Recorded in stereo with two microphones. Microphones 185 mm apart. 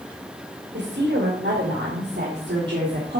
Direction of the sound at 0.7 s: 75° right (ahead or behind).